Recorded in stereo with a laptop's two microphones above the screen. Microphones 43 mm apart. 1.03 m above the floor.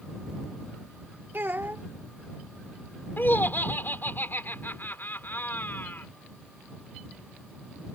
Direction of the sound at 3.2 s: 55° left (ahead or behind).